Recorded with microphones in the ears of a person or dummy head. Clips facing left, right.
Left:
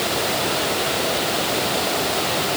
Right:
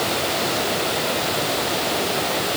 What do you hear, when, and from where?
Only background noise.